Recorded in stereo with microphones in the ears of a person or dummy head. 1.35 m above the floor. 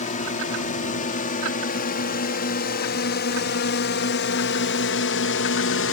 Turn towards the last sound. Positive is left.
turn(degrees=65)  # may be behind; listen again after turning